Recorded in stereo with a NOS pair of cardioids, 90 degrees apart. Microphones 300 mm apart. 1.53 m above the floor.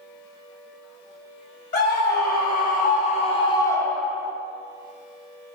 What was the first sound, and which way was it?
A scream, 35° left.